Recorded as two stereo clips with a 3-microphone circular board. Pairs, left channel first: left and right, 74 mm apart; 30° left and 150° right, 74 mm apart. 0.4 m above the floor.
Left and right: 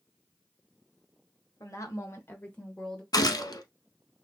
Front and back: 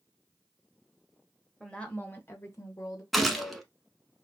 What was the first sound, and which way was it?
A woman speaking, 110° left.